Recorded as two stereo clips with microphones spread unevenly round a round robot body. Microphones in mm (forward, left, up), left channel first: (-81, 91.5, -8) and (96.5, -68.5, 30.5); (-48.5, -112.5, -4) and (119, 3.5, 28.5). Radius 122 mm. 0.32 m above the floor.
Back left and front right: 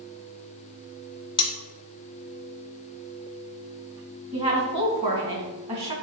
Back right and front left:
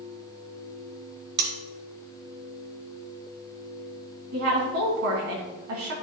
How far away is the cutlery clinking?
About 0.9 m.